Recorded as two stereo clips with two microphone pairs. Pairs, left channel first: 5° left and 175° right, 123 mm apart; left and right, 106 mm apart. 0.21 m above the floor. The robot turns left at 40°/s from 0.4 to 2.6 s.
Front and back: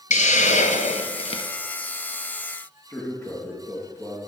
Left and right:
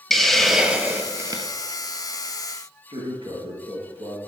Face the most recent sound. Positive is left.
turn(degrees=-65)